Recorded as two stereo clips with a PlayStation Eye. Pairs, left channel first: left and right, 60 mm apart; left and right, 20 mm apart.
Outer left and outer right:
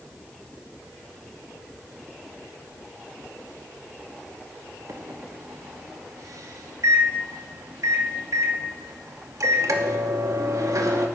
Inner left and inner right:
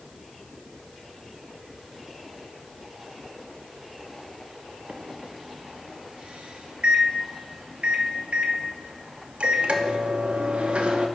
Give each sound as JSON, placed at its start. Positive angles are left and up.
{"t": 4.9, "sound": "a microwave", "side_deg": -65, "distance_m": 0.7}